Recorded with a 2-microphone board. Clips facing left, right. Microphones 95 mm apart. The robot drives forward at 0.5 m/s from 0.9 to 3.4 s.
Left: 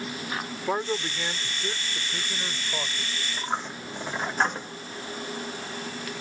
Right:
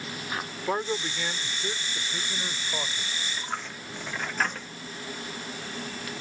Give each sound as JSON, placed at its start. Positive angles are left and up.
{"t": 0.7, "sound": "a man speaking", "side_deg": 5}
{"t": 3.3, "sound": "a dropped coin", "side_deg": 25}